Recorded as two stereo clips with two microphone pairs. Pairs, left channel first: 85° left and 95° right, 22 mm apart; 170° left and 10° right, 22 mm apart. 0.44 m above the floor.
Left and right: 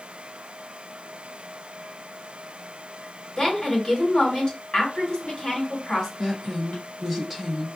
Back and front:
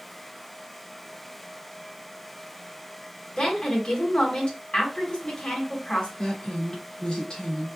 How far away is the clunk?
I don't hear a clunk.